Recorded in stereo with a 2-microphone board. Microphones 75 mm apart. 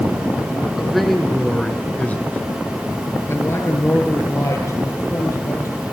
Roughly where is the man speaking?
Centre.